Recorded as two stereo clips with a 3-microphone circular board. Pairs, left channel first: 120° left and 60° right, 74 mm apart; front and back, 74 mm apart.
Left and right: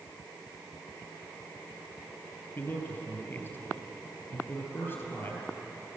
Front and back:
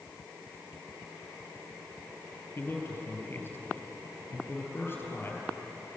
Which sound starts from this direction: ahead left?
A man speaking, at 2.6 s.